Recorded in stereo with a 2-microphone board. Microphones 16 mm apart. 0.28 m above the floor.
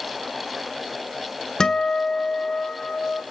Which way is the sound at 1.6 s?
40° left (ahead or behind).